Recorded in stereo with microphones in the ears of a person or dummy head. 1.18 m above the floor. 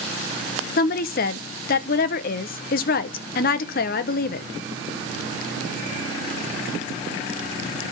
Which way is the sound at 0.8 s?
45° left (ahead or behind).